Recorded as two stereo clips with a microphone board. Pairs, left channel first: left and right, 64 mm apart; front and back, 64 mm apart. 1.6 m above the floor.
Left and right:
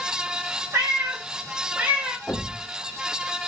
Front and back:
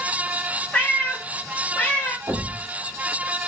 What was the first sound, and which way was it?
A cat meowing, 55° right.